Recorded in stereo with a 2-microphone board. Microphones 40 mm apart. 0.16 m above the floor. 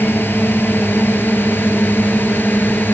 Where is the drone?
65° left (ahead or behind); by 3.0 s 55° left (ahead or behind).